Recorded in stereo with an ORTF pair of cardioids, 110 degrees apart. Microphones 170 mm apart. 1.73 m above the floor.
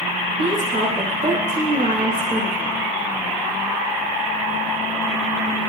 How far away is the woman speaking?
About 2.5 m.